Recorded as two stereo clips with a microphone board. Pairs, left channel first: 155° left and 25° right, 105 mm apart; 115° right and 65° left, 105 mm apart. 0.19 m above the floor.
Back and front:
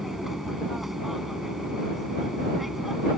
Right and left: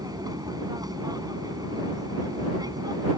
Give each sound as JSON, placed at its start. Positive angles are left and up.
{"t": 0.0, "sound": "an aircraft", "azimuth_deg": 65}